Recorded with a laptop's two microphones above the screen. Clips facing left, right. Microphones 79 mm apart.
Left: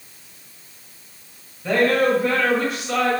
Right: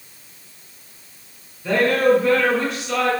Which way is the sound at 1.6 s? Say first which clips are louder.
Right 1 dB; 15° left (ahead or behind).